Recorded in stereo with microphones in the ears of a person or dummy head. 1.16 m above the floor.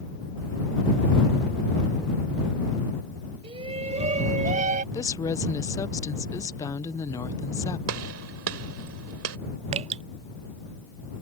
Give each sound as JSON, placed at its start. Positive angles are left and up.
{"t": 3.4, "sound": "a shout", "side_deg": -30}
{"t": 4.9, "sound": "a woman speaking", "side_deg": 20}
{"t": 7.9, "sound": "a gunshot", "side_deg": -75}
{"t": 9.7, "sound": "dripping", "side_deg": -40}